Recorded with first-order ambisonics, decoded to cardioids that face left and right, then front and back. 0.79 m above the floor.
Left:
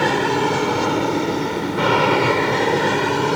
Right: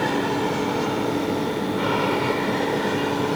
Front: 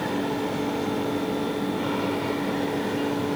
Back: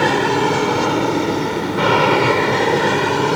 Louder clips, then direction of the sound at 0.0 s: Left 5 dB, back 12 dB; 150° left.